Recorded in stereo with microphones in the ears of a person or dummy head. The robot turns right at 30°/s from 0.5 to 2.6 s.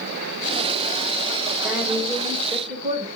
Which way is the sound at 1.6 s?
10° right (ahead or behind).